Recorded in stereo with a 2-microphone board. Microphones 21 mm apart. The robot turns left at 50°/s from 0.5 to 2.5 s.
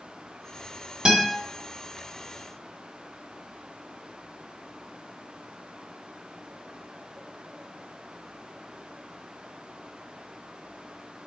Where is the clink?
No clink in this recording.